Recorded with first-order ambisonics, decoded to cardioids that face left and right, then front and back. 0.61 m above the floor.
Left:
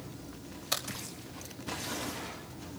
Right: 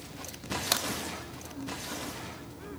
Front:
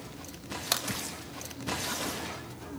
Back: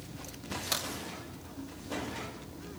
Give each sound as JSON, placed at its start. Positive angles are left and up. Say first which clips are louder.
{"t": 0.7, "sound": "a crack", "louder": "right 3 dB, front 3 dB", "azimuth_deg": -60, "distance_m": 1.7}